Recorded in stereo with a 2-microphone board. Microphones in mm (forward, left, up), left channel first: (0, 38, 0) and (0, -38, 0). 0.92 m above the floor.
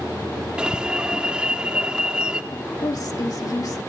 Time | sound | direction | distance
0.6 | an alarm | 10° right (ahead or behind) | 1.5 m
2.5 | a woman speaking | 55° left (ahead or behind) | 1.9 m